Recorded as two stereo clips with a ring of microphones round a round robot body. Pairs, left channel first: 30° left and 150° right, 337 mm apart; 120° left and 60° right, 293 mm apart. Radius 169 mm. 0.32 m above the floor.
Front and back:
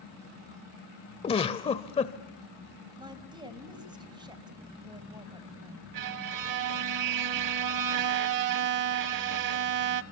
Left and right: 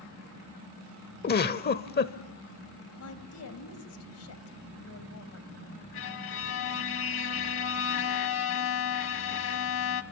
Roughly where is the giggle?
Left.